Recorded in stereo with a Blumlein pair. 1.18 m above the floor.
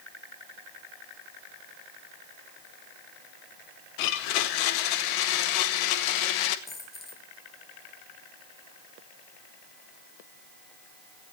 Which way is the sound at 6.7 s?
20° left.